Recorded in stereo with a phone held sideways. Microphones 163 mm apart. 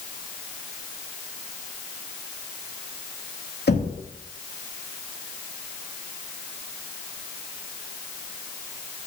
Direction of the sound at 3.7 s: 85° left.